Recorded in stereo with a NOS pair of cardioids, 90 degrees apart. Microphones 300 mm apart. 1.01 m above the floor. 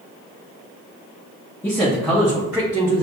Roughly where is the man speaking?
Ahead.